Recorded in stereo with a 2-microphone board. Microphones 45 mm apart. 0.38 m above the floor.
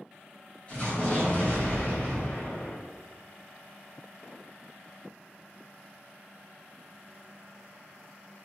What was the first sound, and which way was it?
An explosion, 30° left (ahead or behind).